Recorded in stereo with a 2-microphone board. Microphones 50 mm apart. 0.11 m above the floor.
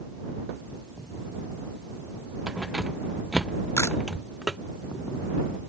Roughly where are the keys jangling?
Centre.